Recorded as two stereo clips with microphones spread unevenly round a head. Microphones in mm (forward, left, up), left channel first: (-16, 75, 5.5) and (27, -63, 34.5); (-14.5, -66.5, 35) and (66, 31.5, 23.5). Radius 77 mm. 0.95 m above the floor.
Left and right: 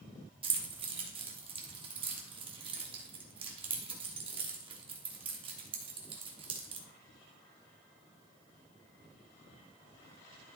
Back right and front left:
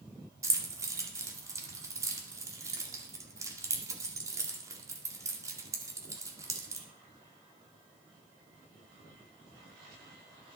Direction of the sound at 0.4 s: 15° right.